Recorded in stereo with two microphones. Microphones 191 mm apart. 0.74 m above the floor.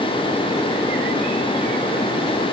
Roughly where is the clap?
I don't hear a clap.